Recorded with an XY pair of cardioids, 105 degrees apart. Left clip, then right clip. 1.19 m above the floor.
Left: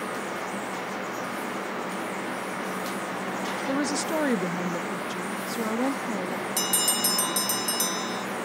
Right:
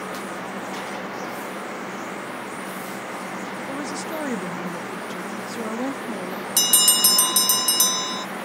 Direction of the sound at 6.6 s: 55° right.